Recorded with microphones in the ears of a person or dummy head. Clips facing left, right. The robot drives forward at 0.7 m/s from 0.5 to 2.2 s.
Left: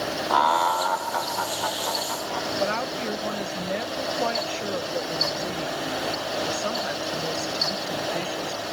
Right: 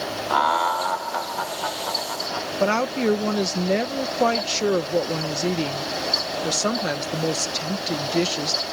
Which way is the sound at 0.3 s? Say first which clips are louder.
Even; centre (ahead or behind).